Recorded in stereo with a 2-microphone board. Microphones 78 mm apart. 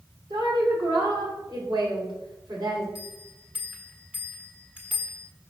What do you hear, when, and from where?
0.3 s a woman speaking: 70° right (ahead or behind), 2.5 m
3.0 s a bell: 20° right (ahead or behind), 1.3 m